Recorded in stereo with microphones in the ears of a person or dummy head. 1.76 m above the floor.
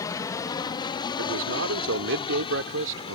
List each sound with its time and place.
0.0 s an aircraft: 15° left (ahead or behind); by 3.2 s 25° left (ahead or behind)
1.2 s a man speaking: 65° right (ahead or behind)